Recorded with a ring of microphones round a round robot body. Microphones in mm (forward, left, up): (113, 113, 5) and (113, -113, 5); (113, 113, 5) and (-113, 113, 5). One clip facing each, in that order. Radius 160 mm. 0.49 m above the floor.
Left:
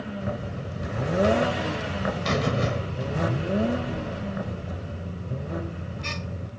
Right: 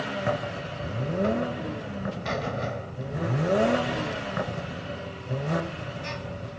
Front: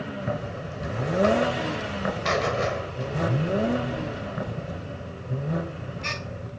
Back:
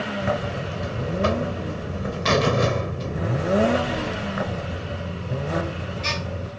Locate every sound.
0.2 s a buzzer: 145° left